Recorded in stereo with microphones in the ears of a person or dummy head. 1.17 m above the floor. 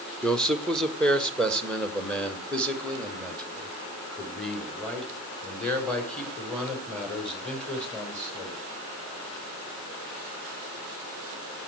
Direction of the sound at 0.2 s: 5° left (ahead or behind).